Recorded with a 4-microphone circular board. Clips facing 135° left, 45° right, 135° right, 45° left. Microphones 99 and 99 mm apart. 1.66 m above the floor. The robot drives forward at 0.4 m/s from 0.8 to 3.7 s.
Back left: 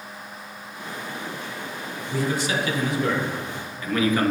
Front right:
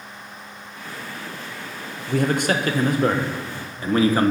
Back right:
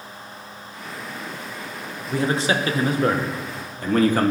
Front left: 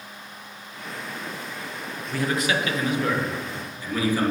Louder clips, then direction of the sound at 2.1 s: Front right 5 dB, back right 3 dB; 70° right.